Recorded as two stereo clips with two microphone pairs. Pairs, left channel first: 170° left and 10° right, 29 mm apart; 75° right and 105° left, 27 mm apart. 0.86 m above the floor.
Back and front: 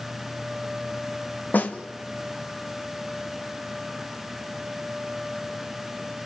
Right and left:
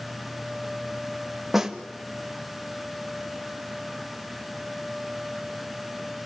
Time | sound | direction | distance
1.5 | a snare drum | 175° right | 1.7 m